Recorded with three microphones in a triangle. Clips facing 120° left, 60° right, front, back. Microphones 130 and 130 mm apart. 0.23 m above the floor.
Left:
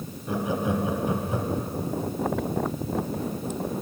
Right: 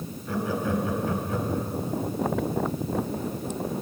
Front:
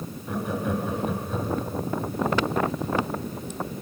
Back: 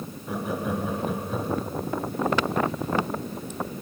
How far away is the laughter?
About 1.0 m.